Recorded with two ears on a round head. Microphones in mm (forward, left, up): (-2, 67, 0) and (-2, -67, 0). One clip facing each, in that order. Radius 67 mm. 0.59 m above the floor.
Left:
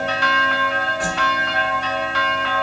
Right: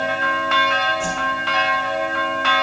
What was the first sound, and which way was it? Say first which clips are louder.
A whoosh: left 2 dB; 10° left (ahead or behind).